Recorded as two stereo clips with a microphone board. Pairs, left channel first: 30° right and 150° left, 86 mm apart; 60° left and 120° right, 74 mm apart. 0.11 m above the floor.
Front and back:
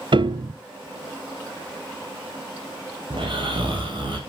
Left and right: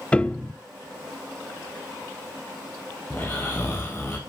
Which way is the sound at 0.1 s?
135° left.